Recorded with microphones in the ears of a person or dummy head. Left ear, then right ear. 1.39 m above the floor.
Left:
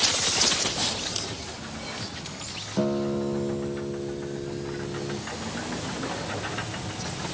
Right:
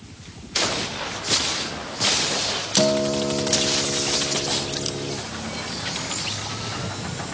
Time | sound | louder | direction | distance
2.8 | a guitar | right 7 dB | 20° right (ahead or behind) | 0.6 m